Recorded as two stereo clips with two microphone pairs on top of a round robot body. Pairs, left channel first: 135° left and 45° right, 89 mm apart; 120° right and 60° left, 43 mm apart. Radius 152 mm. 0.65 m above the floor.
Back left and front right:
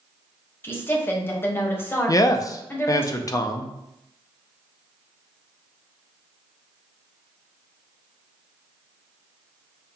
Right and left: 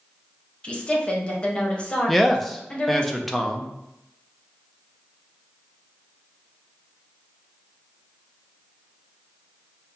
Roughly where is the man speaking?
Behind left.